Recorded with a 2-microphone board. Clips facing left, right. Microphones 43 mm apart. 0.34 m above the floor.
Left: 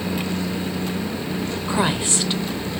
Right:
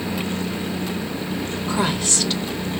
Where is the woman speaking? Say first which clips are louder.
Left 1 dB; 20° left (ahead or behind), 0.9 m.